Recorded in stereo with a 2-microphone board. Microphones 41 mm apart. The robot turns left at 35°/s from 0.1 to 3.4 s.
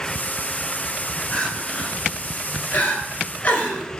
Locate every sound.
1.3 s crying: 20° left (ahead or behind), 0.9 m; by 4.0 s 35° left (ahead or behind), 0.9 m